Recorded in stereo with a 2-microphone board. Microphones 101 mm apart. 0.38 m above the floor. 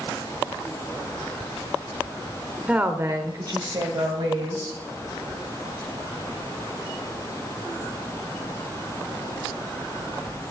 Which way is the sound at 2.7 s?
10° right (ahead or behind).